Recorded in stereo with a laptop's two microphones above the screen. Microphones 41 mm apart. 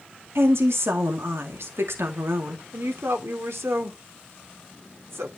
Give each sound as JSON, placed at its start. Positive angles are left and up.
{"t": 0.3, "sound": "a woman speaking", "side_deg": -80, "distance_m": 2.0}
{"t": 2.7, "sound": "a woman speaking", "side_deg": -85, "distance_m": 2.5}